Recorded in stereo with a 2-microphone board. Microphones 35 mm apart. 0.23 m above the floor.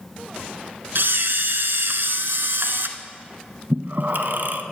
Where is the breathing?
55° right (ahead or behind), 0.7 m.